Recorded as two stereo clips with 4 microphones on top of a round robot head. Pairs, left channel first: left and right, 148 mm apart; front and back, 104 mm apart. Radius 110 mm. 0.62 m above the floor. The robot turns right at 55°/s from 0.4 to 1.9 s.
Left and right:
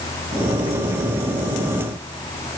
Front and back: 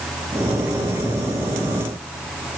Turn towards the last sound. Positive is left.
No sound to turn to.